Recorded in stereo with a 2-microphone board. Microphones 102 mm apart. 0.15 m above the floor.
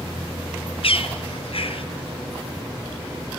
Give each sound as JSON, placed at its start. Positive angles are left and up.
{"t": 0.8, "sound": "a bird", "side_deg": 65, "distance_m": 1.6}